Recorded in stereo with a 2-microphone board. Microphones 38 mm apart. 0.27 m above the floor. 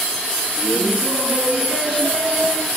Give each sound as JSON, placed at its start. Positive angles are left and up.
{"t": 0.6, "sound": "laughter", "side_deg": -5, "distance_m": 3.5}